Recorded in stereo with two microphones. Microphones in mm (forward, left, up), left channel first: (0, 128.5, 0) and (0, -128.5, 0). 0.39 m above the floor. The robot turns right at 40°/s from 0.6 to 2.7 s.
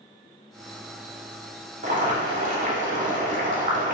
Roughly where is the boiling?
Behind right.